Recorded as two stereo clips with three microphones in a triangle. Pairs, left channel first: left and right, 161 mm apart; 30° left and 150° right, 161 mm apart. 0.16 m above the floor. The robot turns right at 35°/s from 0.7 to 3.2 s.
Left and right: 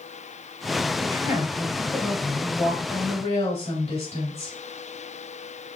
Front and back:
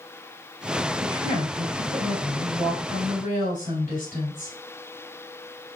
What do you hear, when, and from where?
1.0 s a woman speaking: 25° right, 3 m; by 4.5 s 50° left, 3 m